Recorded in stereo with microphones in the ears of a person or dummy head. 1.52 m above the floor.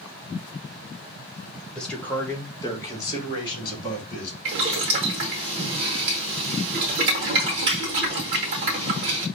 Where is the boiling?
40° right (ahead or behind), 0.9 m.